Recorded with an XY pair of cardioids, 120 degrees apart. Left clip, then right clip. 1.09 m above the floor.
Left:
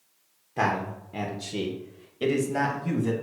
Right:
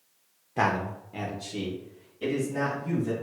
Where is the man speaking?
15° right, 0.6 m; by 3.1 s 75° left, 1.3 m.